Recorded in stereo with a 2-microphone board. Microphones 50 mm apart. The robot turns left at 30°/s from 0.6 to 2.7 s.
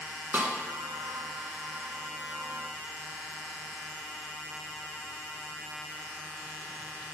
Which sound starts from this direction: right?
A snare drum, at 0.3 s.